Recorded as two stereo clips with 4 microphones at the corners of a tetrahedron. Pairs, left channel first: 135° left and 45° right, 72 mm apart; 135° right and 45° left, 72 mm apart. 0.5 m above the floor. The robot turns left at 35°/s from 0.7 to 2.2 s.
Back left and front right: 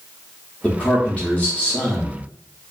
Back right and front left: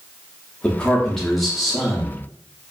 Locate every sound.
0.6 s a man speaking: 170° left, 0.8 m; by 2.2 s 115° left, 0.8 m